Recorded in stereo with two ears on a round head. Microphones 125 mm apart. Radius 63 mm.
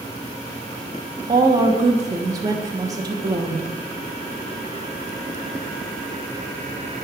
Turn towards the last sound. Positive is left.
turn(degrees=-25)  # may be behind; listen again after turning